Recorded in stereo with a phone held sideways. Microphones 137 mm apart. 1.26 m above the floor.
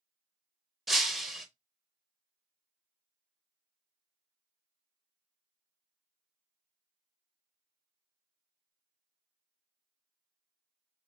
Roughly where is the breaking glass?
Centre.